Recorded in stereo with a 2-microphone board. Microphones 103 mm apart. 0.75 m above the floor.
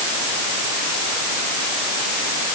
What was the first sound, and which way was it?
Only background noise.